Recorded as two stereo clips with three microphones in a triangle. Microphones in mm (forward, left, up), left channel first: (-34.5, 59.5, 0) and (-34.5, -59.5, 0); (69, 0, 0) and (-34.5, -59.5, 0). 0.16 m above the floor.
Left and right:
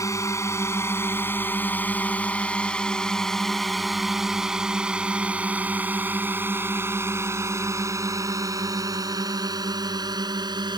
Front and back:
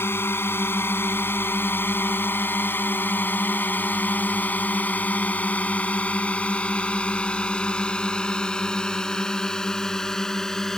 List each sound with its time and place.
0.0 s a drone: 75° left; by 10.8 s 55° right